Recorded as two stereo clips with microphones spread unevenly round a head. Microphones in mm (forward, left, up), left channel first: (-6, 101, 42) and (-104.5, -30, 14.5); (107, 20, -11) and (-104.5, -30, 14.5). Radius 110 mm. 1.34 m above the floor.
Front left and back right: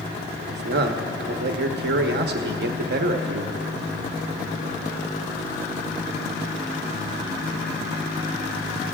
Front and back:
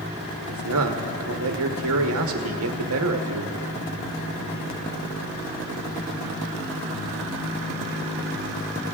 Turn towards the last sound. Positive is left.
turn(degrees=-140)